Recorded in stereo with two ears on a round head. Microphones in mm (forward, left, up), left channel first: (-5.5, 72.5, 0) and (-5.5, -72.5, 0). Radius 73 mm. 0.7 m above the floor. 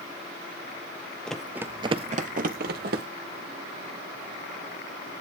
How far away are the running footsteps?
About 1.1 m.